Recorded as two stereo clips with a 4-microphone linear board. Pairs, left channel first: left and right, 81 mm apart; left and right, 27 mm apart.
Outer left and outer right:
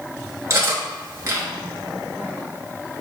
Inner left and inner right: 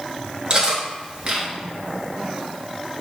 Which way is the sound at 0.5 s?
35° right (ahead or behind).